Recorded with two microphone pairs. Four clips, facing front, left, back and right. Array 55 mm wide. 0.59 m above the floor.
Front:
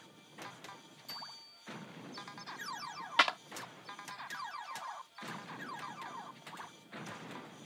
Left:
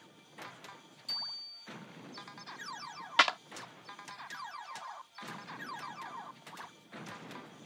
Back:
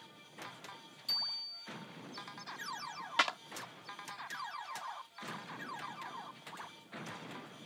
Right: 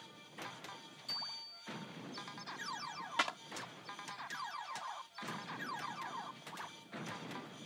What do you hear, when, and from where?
1.1 s a bicycle bell: 155° left
3.2 s a clap: 75° left